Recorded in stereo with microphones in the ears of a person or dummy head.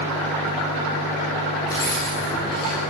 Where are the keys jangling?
15° left (ahead or behind), 9.5 m; by 2.8 s 25° left (ahead or behind), 10.5 m.